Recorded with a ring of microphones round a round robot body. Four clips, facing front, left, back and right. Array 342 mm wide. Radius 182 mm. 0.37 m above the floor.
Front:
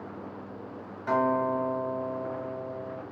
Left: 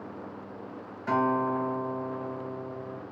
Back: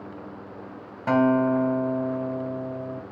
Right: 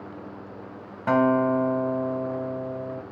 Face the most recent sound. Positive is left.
turn(degrees=-130)